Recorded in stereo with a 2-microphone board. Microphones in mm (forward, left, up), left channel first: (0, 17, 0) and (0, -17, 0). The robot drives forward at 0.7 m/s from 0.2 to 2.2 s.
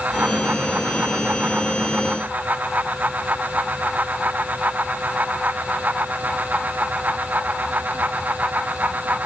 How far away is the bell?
I don't hear a bell.